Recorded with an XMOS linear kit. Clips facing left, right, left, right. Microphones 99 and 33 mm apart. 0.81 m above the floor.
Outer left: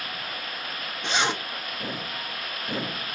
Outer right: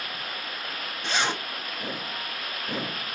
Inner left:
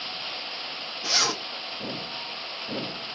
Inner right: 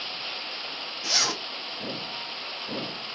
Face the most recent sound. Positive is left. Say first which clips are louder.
# outer left 2 dB, inner left 1 dB
turn(degrees=20)  # may be behind; listen again after turning